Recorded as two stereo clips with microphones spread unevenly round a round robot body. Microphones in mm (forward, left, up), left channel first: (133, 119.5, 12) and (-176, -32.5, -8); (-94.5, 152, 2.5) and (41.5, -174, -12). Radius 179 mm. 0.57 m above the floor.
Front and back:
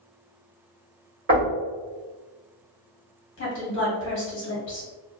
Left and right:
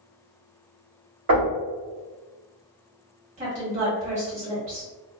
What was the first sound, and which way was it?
Knocking, 100° right.